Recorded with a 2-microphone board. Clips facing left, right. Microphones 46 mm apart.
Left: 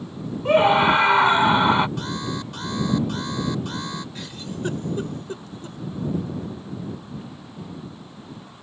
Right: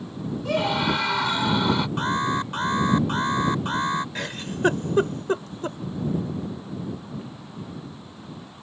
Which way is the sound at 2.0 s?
40° right (ahead or behind).